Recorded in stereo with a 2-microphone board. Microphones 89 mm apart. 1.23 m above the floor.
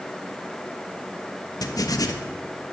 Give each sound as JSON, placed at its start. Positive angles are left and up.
{"t": 1.6, "sound": "writing", "side_deg": 45, "distance_m": 1.3}